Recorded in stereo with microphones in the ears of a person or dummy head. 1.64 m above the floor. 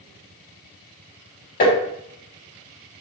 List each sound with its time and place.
1.6 s tapping: 50° left (ahead or behind), 2.5 m